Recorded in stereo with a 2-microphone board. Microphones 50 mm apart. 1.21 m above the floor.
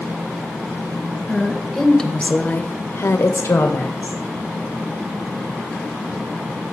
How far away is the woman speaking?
About 1.4 m.